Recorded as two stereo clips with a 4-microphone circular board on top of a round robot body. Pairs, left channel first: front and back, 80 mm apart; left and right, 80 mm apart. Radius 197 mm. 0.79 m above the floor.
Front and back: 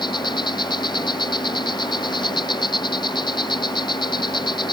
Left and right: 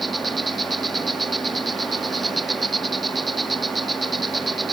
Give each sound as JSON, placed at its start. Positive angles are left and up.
{"t": 0.0, "sound": "an insect", "azimuth_deg": 0}